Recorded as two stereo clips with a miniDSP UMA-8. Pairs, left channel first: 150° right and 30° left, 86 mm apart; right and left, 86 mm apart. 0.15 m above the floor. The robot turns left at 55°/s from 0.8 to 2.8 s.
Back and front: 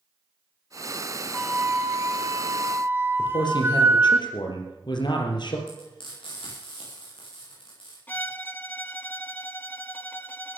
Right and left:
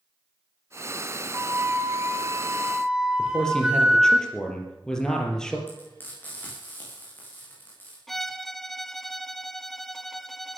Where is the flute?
100° left, 1.2 m; by 4.2 s 20° left, 1.2 m.